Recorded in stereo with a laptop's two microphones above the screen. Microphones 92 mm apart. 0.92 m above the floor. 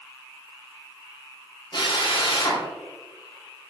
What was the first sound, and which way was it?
A drill, 55° left (ahead or behind).